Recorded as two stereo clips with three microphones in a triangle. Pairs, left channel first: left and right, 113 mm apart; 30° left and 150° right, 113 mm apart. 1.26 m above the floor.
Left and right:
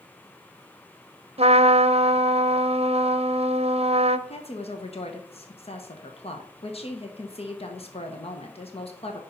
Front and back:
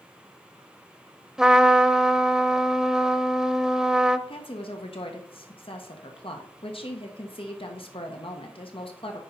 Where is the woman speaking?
65° left, 1.2 m.